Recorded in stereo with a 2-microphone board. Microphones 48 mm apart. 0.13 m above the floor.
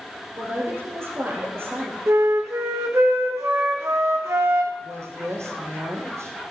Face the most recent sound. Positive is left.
turn(degrees=-70)  # may be behind; listen again after turning